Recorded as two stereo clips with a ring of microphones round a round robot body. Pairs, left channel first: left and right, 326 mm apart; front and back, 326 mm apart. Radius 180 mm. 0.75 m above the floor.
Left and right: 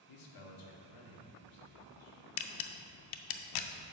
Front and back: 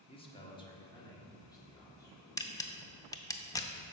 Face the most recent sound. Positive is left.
turn(degrees=80)